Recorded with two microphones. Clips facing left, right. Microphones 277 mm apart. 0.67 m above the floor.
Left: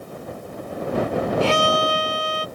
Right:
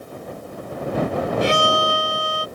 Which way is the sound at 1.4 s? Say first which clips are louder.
Even; 20° right (ahead or behind).